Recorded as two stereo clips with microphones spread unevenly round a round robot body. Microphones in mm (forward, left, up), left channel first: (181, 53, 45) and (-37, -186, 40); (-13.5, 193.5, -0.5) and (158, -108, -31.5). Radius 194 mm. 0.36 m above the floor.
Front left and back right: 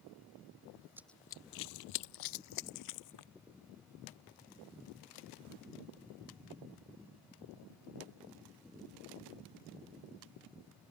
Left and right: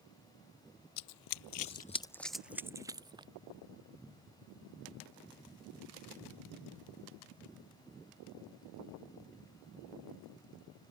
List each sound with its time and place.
1.0 s running footsteps: 145° left; by 3.3 s 20° left